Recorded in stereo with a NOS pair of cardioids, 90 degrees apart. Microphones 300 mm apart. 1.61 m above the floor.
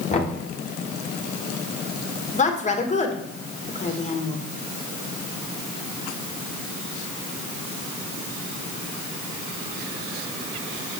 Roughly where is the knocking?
Ahead left.